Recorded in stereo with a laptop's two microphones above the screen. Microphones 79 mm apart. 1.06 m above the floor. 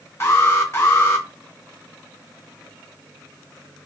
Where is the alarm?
30° left (ahead or behind), 0.8 m.